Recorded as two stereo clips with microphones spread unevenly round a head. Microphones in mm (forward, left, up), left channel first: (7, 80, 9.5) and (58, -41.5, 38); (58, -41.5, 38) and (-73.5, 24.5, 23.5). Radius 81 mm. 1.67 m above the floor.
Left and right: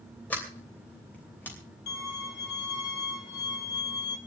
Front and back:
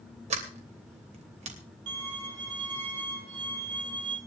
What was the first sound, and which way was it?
A sliding door, 160° right.